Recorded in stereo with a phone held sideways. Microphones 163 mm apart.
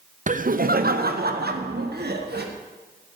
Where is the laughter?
55° right (ahead or behind), 0.7 m; by 2.5 s 85° right, 1.7 m.